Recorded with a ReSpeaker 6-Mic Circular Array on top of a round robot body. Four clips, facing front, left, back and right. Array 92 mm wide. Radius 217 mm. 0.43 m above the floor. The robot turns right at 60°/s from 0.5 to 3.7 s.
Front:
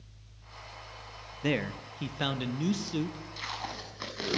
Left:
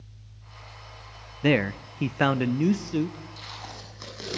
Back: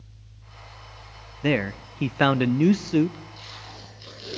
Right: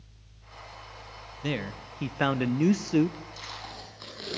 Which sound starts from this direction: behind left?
A man speaking, at 1.4 s.